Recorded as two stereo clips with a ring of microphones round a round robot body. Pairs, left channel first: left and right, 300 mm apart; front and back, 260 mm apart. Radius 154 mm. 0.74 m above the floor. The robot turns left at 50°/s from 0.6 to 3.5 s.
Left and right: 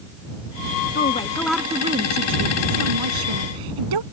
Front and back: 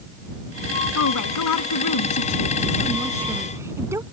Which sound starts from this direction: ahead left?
A woman speaking, at 0.9 s.